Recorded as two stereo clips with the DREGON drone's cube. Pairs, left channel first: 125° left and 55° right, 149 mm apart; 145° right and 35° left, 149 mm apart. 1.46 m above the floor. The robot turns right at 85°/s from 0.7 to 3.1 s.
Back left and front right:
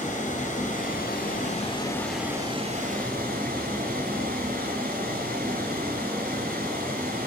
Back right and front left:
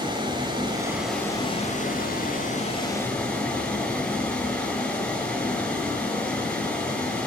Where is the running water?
90° left, 4 m; by 7.3 s 65° right, 4 m.